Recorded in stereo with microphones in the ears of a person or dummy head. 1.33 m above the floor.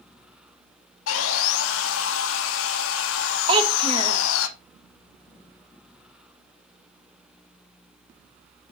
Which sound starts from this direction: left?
Sawing, at 1.1 s.